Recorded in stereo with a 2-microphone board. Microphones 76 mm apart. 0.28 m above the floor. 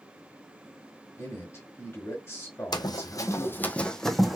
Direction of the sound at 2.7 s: 65° left (ahead or behind).